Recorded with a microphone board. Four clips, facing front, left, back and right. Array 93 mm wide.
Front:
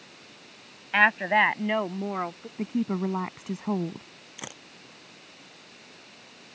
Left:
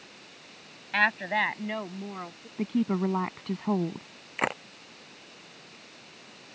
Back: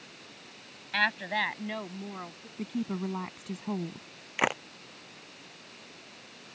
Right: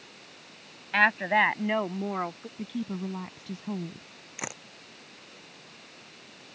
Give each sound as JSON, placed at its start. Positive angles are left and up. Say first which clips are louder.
{"t": 0.9, "sound": "a woman speaking", "louder": "right 3 dB, front 8 dB", "azimuth_deg": -15}
{"t": 2.6, "sound": "a woman speaking", "louder": "left 7 dB, front 5 dB", "azimuth_deg": 60}
{"t": 4.4, "sound": "a camera shutter", "louder": "left 10 dB, back 15 dB", "azimuth_deg": 140}